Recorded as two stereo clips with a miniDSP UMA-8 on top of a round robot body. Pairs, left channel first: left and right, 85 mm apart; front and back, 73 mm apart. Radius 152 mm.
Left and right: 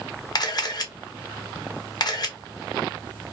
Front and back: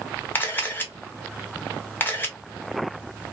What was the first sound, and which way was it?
A camera shutter, 60° left.